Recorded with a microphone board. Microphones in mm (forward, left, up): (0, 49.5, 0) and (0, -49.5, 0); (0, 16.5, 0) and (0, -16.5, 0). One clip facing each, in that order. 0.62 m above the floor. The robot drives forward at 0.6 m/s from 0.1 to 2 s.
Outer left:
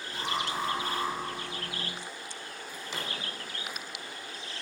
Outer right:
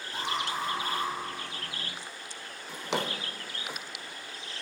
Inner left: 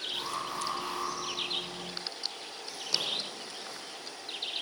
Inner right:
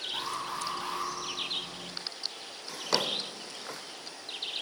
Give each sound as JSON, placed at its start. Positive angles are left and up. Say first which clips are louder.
{"t": 0.1, "sound": "an alarm", "louder": "even, inner right 1 dB", "side_deg": -50, "distance_m": 3.5}
{"t": 2.7, "sound": "a drawer", "louder": "outer right 8 dB, inner right 3 dB", "side_deg": -75, "distance_m": 0.6}